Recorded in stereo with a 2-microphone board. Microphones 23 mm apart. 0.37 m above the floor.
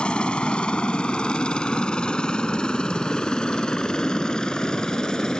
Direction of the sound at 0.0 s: 45° left (ahead or behind).